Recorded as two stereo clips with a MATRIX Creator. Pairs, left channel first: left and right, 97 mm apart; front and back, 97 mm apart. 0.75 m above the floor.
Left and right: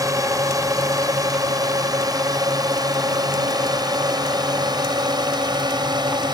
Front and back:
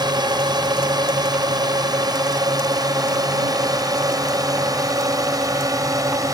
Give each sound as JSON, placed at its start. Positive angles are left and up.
{"t": 0.0, "sound": "a drone", "azimuth_deg": -140}